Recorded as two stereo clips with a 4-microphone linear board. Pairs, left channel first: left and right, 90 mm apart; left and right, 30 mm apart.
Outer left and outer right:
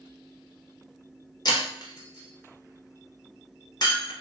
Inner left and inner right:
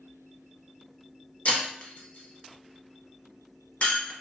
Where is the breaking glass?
50° left (ahead or behind), 0.9 m.